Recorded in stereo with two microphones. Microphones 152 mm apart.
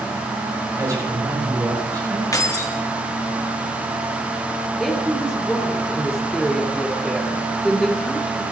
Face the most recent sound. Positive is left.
turn(degrees=5)  # may be behind; listen again after turning